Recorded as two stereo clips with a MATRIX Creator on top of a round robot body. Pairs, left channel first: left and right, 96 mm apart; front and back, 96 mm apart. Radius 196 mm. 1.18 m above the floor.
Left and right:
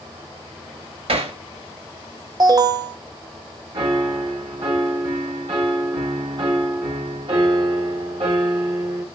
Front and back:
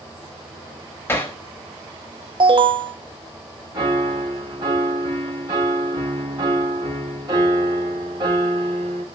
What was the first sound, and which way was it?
Hammering, 70° right.